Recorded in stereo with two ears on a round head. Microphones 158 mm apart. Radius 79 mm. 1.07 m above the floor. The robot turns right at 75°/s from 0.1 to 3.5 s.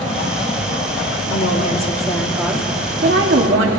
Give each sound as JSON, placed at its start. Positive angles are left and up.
{"t": 1.3, "sound": "a woman speaking", "azimuth_deg": 100, "distance_m": 2.5}